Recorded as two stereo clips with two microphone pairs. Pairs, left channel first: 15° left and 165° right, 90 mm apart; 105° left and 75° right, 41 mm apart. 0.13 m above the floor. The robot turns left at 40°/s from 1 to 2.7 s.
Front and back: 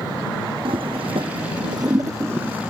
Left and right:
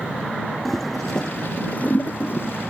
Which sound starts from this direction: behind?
A toilet flushing, at 0.7 s.